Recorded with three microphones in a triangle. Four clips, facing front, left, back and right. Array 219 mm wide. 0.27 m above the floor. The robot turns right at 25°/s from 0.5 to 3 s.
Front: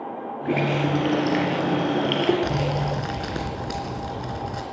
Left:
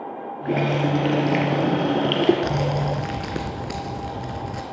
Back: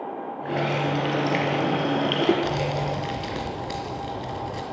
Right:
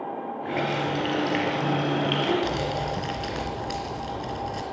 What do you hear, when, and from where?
0.5 s a running tap: 50° left, 4.5 m; by 2.3 s 95° left, 4.5 m
2.4 s crumpling: 60° left, 3 m; by 4.6 s 70° left, 3 m